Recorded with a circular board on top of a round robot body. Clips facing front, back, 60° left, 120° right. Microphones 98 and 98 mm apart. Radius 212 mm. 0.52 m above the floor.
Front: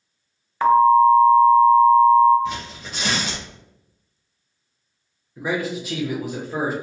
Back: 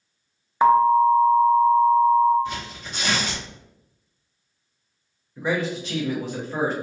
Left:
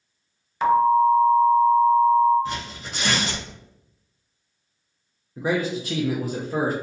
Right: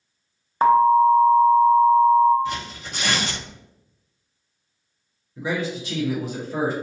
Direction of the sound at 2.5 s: 5° left.